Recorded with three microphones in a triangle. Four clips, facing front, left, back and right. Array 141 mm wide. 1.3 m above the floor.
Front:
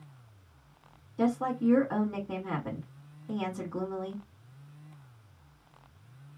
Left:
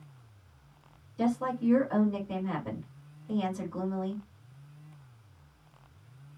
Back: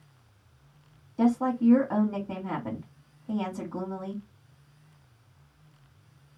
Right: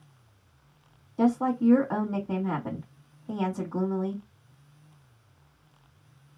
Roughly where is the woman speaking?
Behind right.